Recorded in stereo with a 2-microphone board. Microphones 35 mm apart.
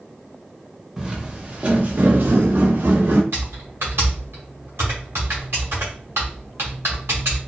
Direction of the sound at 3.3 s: 85° right.